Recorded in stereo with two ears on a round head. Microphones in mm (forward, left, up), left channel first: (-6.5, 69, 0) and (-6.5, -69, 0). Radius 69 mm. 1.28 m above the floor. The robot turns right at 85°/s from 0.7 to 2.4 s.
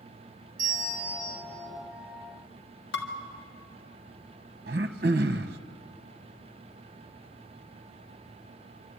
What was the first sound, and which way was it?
A bell, 70° right.